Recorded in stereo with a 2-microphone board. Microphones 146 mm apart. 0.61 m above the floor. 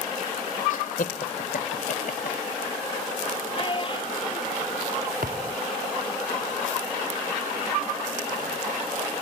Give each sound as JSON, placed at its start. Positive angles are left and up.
{"t": 0.7, "sound": "laughter", "side_deg": 65}
{"t": 3.5, "sound": "a child speaking", "side_deg": 35}
{"t": 5.2, "sound": "a thud", "side_deg": -75}